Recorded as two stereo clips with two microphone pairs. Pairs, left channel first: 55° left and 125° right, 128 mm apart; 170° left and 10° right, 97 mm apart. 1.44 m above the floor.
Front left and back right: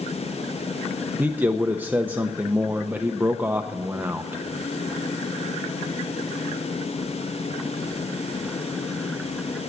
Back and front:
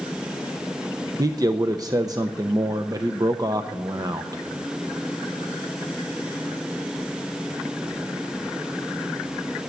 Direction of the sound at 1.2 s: 50° right.